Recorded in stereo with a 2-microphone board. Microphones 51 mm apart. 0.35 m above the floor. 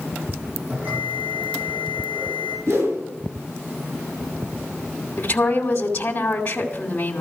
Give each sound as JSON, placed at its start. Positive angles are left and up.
{"t": 0.7, "sound": "a bell", "side_deg": -30, "distance_m": 9.5}
{"t": 2.7, "sound": "a whoosh", "side_deg": -70, "distance_m": 5.5}
{"t": 5.2, "sound": "a woman speaking", "side_deg": 30, "distance_m": 2.5}